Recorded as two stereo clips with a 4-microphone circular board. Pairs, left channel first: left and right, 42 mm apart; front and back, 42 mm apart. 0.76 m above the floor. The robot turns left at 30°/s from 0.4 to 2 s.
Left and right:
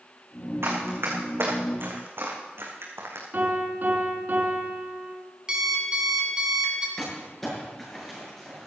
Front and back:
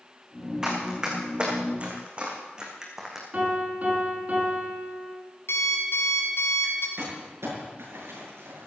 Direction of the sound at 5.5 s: 20° right.